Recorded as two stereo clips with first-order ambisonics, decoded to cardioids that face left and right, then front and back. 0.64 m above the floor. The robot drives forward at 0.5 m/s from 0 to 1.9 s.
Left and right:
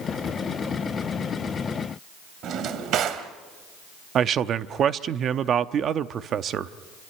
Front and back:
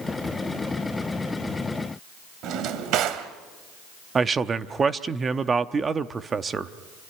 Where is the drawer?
140° right, 1.6 m.